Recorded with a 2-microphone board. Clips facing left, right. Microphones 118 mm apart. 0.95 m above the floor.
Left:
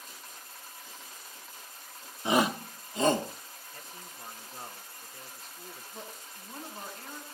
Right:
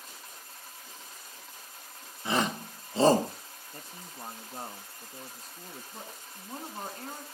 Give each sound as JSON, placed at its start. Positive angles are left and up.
{"t": 2.2, "sound": "a shout", "side_deg": 20, "distance_m": 0.9}
{"t": 3.7, "sound": "a man speaking", "side_deg": -40, "distance_m": 1.7}
{"t": 5.9, "sound": "a woman speaking", "side_deg": -45, "distance_m": 9.0}